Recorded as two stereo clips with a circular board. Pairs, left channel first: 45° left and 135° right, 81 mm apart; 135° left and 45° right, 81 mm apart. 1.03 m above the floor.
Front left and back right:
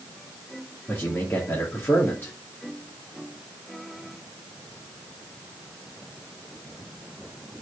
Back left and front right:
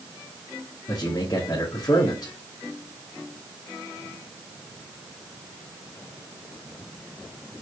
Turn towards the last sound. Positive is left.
turn(degrees=105)